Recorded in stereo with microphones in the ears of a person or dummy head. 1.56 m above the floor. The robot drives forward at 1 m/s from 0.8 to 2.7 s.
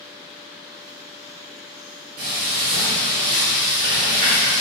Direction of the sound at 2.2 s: 50° right (ahead or behind).